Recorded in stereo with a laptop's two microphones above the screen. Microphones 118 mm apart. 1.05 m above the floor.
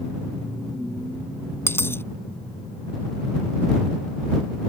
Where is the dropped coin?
20° left (ahead or behind).